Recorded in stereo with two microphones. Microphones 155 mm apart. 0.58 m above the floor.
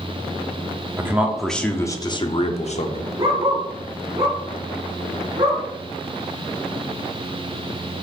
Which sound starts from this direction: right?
A dog barking, at 3.2 s.